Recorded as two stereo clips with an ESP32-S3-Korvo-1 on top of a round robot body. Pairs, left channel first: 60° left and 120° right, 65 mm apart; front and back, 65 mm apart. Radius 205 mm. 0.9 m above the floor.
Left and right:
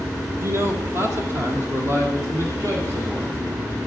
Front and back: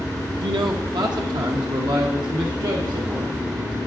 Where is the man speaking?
175° right, 0.9 m; by 3.8 s 170° right, 2.5 m.